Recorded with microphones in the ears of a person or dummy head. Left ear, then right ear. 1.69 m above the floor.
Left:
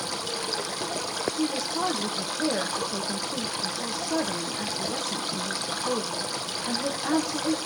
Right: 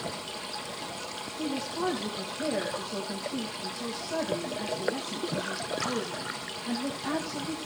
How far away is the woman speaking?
About 2 m.